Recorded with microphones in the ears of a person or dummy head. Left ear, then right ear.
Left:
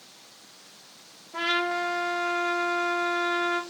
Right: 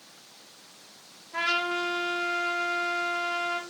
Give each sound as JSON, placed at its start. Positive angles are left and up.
{"t": 1.3, "sound": "a trumpet", "side_deg": -80, "distance_m": 1.2}